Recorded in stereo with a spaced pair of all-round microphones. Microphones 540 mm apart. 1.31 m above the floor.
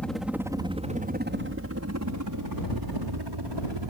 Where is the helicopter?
Centre (ahead or behind); by 3.9 s 55° right (ahead or behind).